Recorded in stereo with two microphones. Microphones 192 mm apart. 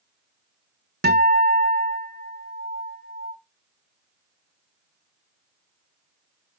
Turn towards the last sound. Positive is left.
turn(degrees=-60)  # may be behind; listen again after turning